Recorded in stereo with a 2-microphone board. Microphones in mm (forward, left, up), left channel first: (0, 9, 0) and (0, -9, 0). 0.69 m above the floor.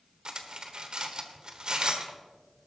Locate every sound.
0.2 s cutlery clinking: 45° right (ahead or behind), 1.2 m